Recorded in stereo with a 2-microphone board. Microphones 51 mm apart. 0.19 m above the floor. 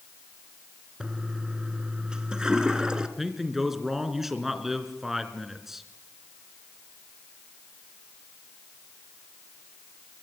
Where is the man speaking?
5° right (ahead or behind), 3 m.